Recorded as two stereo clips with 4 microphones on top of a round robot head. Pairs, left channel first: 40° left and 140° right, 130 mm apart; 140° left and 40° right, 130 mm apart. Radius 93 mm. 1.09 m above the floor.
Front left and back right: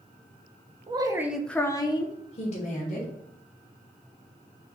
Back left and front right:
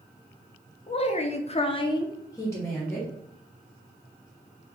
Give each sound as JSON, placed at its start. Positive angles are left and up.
{"t": 0.9, "sound": "a woman speaking", "azimuth_deg": 175, "distance_m": 0.8}